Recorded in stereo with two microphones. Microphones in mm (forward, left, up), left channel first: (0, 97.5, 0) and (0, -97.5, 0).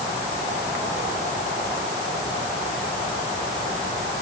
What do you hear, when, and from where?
Only background noise.